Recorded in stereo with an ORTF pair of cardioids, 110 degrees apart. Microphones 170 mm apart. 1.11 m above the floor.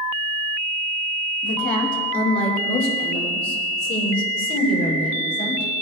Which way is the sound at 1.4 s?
50° left.